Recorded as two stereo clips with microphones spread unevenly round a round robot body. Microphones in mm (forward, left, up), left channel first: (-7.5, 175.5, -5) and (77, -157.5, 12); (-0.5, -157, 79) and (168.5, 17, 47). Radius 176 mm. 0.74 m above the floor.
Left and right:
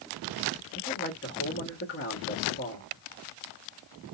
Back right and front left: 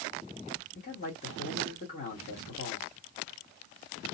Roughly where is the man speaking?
Behind.